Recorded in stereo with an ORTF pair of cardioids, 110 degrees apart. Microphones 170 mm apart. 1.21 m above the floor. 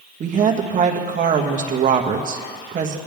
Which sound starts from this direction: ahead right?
A woman speaking, at 0.2 s.